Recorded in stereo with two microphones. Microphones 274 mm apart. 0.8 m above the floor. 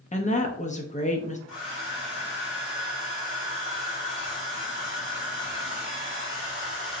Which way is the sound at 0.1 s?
25° left (ahead or behind).